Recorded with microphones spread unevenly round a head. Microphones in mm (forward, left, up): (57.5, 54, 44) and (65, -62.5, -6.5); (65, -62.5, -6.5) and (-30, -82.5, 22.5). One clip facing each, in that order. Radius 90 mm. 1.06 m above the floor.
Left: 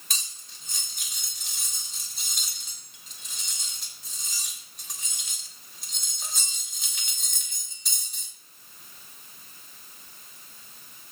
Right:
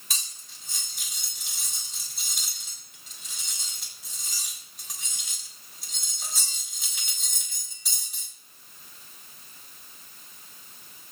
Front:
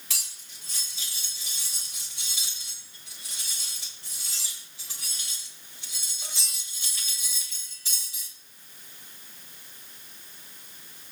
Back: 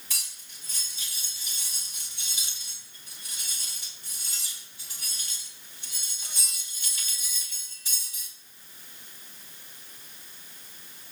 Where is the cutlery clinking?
5° left, 2.5 m.